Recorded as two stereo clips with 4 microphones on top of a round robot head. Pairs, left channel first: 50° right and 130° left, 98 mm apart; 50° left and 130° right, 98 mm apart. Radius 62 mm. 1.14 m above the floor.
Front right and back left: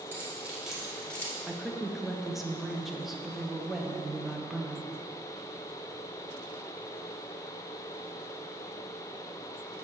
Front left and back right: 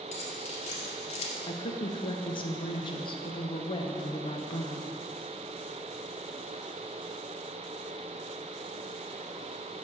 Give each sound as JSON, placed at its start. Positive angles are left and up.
{"t": 0.1, "sound": "keys jangling", "azimuth_deg": 60, "distance_m": 2.5}
{"t": 1.5, "sound": "a woman speaking", "azimuth_deg": 45, "distance_m": 1.0}